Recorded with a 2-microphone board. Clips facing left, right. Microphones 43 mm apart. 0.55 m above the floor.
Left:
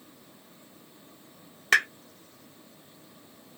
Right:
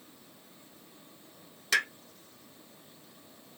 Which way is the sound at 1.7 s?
45° left (ahead or behind).